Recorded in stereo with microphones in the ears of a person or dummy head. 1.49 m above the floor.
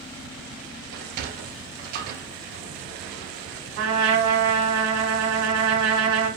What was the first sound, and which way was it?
A sliding door, 55° right (ahead or behind).